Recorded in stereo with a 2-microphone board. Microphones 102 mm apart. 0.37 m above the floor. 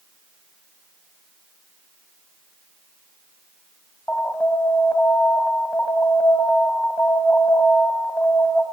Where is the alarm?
15° left (ahead or behind), 3 m.